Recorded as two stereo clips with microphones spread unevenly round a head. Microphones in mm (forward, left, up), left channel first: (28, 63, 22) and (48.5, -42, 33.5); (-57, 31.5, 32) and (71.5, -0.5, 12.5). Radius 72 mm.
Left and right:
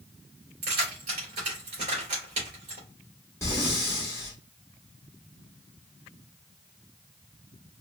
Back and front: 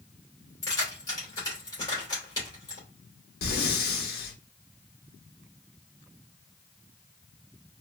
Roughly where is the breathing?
Behind.